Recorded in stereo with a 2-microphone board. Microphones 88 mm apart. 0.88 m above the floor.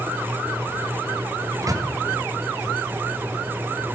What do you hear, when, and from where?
1.6 s a microwave: 40° right (ahead or behind), 0.6 m